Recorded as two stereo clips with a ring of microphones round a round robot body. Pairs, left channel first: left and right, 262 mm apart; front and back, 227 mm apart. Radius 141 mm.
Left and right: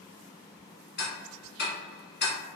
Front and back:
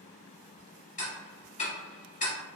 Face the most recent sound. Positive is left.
turn(degrees=50)